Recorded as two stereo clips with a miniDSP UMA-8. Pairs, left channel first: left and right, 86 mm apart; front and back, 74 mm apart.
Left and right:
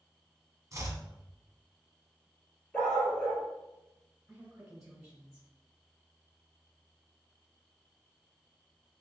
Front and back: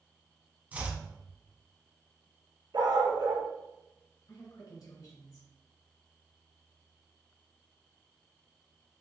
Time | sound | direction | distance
0.7 | chopping | 120° right | 0.8 m
2.7 | a dog barking | 170° left | 1.3 m
4.3 | a woman speaking | 10° right | 2 m